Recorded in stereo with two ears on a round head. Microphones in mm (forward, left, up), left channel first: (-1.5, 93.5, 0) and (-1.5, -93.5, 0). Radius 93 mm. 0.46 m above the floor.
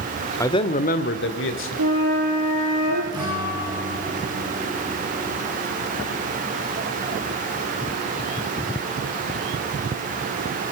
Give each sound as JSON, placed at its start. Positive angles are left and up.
{"t": 0.4, "sound": "a man speaking", "side_deg": 15, "distance_m": 1.3}
{"t": 1.8, "sound": "a flute", "side_deg": -65, "distance_m": 7.0}
{"t": 3.1, "sound": "a guitar", "side_deg": -20, "distance_m": 8.0}